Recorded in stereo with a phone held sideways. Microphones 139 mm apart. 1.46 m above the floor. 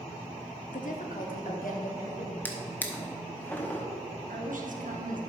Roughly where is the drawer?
Centre.